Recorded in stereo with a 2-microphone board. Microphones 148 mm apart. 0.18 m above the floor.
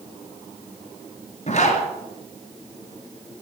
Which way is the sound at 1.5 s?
50° left (ahead or behind).